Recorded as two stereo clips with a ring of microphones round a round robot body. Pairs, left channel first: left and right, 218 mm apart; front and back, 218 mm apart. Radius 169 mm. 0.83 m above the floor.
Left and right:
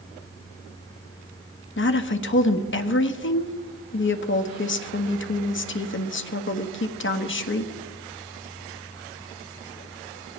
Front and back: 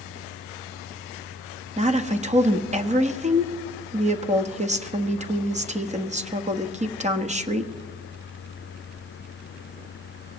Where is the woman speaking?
120° left, 1.5 m.